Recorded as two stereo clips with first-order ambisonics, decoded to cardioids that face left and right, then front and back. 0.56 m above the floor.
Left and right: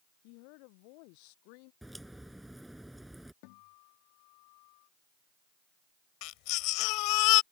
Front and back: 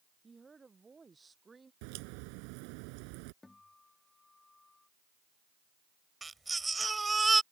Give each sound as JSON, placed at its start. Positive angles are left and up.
{"t": 0.2, "sound": "a woman speaking", "azimuth_deg": 100}
{"t": 1.8, "sound": "a crack", "azimuth_deg": -175}
{"t": 3.4, "sound": "a guitar", "azimuth_deg": 80}
{"t": 6.2, "sound": "a baby crying", "azimuth_deg": 100}